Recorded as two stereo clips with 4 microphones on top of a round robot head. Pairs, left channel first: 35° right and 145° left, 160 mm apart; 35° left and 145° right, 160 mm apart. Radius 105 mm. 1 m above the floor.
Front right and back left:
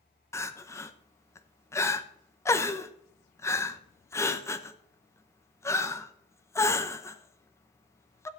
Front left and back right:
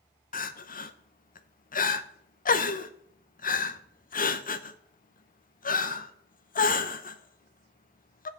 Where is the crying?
35° left, 0.9 m.